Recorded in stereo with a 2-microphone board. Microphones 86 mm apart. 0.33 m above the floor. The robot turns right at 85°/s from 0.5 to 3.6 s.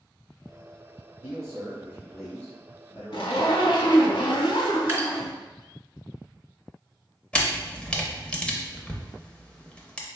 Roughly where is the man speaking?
Right.